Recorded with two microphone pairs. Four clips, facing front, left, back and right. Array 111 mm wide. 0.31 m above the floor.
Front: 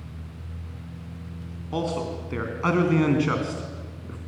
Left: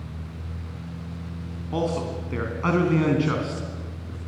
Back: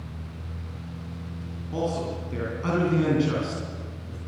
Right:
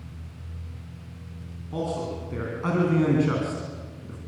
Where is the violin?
I don't hear a violin.